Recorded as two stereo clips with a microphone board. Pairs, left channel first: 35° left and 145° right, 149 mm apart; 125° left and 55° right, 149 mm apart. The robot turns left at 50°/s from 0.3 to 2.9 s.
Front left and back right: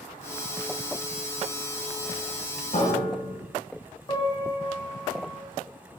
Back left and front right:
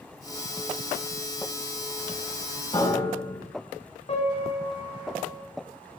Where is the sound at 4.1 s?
90° left, 1.2 m.